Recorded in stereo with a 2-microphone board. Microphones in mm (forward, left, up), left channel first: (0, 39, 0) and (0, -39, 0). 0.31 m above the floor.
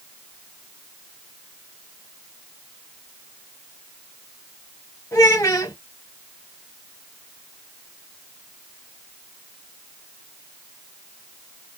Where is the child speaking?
45° left (ahead or behind), 1.6 m.